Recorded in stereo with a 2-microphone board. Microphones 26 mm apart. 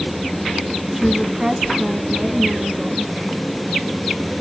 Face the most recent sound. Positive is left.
turn(degrees=-60)  # may be behind; listen again after turning